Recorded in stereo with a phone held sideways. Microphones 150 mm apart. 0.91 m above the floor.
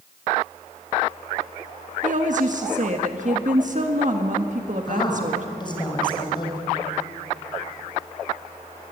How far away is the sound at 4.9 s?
About 5 m.